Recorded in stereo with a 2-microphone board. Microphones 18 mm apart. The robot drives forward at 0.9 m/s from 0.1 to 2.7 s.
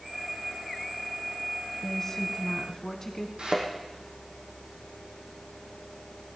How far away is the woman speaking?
About 1.8 m.